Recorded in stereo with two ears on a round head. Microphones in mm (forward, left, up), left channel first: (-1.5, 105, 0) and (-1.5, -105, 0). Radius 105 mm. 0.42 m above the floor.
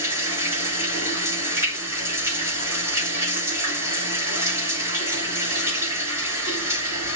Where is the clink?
No clink in this recording.